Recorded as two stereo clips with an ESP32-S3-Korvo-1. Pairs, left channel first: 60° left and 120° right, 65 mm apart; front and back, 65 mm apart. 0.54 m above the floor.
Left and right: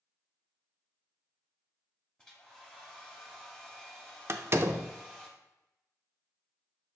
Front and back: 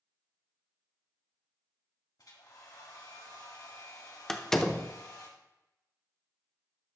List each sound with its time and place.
2.2 s a hair dryer: 20° right, 1.8 m
4.3 s a door slam: 80° right, 0.6 m